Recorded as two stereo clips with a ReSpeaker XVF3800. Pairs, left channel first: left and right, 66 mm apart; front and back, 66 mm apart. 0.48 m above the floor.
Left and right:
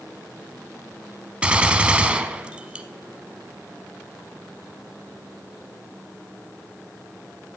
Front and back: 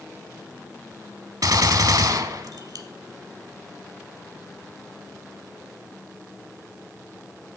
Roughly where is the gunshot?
Behind.